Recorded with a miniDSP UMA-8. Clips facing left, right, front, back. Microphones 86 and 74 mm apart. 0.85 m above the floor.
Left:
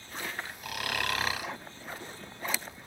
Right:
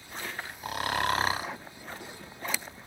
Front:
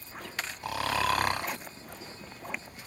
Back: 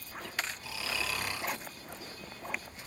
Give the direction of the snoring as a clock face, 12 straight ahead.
1 o'clock.